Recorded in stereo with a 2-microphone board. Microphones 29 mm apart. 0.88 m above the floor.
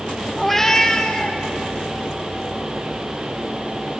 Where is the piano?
I don't hear a piano.